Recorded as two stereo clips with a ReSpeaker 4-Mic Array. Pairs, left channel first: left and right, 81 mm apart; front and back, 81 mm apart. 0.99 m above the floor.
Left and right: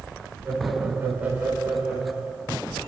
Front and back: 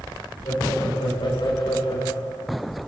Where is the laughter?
25° right, 3 m; by 2.6 s 5° right, 4 m.